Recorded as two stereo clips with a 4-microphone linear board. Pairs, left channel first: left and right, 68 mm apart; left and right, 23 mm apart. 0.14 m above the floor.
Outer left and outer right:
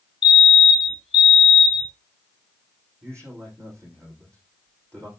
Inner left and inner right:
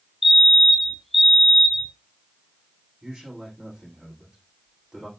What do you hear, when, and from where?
0.2 s a fire alarm: 5° right (ahead or behind), 3 m
3.0 s a man speaking: 40° right (ahead or behind), 9 m